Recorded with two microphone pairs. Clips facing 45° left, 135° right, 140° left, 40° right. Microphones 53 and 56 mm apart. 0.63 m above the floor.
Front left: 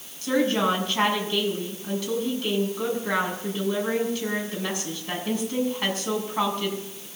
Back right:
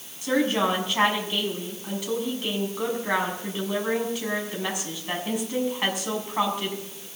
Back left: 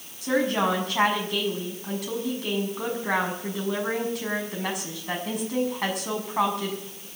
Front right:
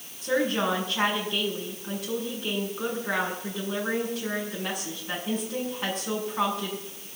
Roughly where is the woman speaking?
Behind left.